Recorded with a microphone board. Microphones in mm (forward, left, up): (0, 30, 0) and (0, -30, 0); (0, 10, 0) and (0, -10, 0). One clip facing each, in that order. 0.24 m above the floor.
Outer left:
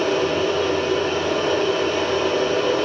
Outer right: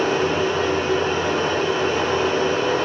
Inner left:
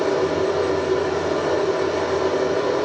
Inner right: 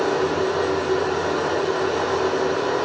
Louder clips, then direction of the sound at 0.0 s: Even, inner left 1 dB; 20° right (ahead or behind).